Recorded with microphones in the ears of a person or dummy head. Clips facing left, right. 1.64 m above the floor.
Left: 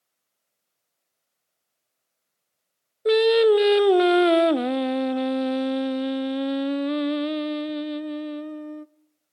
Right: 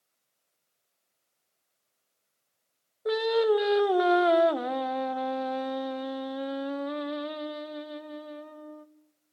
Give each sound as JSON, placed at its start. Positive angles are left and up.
{"t": 3.0, "sound": "singing", "side_deg": 40, "distance_m": 0.6}